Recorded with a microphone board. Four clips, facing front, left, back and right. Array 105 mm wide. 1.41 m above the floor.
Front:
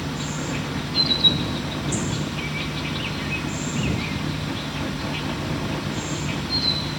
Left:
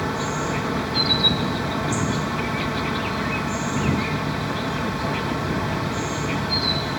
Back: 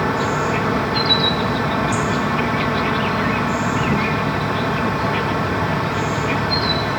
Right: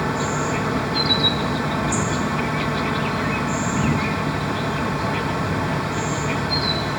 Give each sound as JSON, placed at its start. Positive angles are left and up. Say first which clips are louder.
{"t": 0.0, "sound": "an insect", "louder": "right 2 dB, back 10 dB", "azimuth_deg": -170}